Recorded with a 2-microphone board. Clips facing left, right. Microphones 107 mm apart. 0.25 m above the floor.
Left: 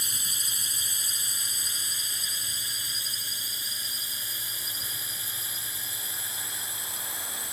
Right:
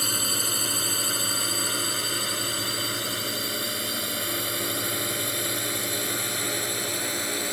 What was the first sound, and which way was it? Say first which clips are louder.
A drone: right 12 dB; 65° right (ahead or behind).